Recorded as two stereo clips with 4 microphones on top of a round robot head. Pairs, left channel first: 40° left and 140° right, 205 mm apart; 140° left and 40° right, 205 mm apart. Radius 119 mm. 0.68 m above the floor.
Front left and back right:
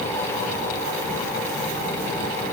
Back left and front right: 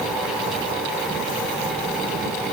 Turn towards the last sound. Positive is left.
No sound to turn to.